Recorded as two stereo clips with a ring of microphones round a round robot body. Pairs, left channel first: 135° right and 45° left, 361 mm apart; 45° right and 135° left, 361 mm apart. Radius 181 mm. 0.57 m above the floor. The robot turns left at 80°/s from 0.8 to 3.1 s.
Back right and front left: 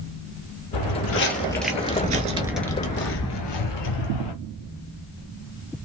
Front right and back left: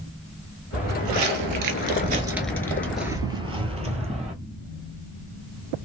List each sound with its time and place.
0.7 s footsteps: 155° right, 1.1 m